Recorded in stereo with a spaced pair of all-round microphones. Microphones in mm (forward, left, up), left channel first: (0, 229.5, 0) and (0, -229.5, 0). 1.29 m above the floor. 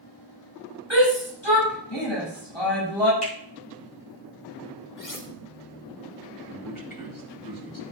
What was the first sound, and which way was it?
A shout, 70° left (ahead or behind).